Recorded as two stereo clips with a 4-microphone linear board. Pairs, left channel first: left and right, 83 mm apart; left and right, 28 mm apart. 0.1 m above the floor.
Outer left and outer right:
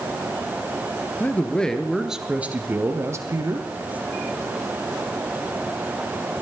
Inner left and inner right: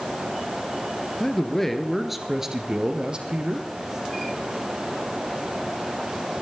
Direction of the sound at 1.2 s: 20° left (ahead or behind).